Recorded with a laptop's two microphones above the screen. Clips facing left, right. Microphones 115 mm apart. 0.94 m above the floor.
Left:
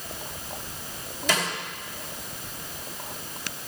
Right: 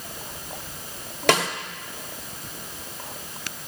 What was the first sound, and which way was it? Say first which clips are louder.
A snare drum: right 7 dB; 65° right (ahead or behind).